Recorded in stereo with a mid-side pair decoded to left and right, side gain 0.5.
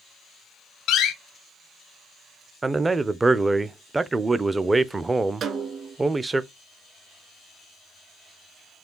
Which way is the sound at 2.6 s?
25° right.